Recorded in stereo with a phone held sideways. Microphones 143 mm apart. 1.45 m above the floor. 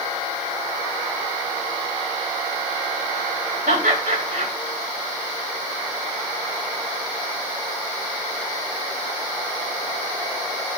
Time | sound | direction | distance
3.7 | laughter | 85° right | 4 m